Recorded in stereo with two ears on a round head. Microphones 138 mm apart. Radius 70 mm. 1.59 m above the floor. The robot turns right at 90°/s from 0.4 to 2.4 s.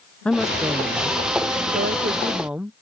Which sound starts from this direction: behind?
A woman speaking, at 0.2 s.